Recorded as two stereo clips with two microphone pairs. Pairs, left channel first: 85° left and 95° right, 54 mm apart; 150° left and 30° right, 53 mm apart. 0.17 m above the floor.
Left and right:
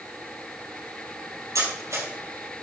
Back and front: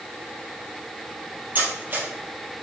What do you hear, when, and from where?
1.6 s cutlery clinking: 85° right, 3 m